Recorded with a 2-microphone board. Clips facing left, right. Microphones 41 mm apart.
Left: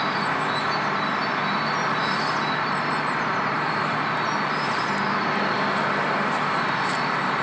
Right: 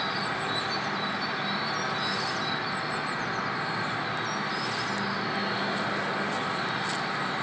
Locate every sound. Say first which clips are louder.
0.0 s an insect: left 6 dB; 75° left (ahead or behind), 0.9 m